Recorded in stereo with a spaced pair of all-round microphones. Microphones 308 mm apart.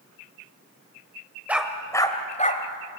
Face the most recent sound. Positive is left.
turn(degrees=30)  # may be behind; listen again after turning